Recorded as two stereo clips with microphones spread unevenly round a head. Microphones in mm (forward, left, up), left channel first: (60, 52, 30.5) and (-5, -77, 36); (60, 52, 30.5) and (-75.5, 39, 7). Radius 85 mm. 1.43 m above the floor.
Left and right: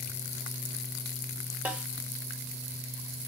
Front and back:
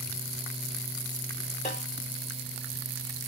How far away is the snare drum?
About 2 m.